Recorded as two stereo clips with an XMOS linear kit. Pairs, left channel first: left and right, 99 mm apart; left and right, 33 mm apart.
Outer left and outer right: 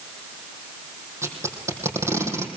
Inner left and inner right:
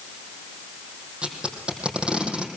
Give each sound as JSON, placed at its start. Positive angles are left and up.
{"t": 1.2, "sound": "tape being pulled", "side_deg": -30, "distance_m": 4.0}